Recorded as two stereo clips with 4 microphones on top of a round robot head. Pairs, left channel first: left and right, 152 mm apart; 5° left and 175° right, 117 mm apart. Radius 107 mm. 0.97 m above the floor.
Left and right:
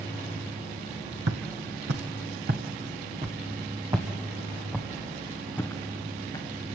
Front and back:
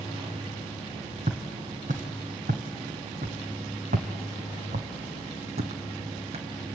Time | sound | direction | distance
1.3 | footsteps | 115° right | 2 m